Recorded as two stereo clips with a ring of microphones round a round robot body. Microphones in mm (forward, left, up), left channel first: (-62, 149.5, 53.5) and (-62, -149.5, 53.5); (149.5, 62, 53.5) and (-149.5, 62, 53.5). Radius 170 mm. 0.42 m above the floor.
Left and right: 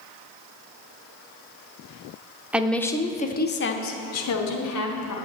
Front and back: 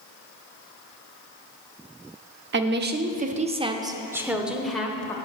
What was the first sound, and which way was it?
A woman speaking, 170° right.